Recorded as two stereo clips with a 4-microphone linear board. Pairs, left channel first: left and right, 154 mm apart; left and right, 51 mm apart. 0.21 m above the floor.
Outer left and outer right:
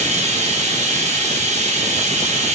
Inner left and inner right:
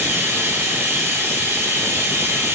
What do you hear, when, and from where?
0.0 s running water: 45° right (ahead or behind), 0.7 m